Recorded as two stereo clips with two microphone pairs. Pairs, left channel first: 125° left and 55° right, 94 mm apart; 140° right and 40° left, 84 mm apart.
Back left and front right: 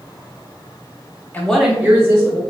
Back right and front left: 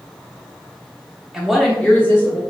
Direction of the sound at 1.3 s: 110° left.